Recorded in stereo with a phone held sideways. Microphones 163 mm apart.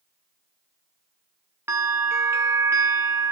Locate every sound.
1.7 s a bell: 15° right (ahead or behind), 0.5 m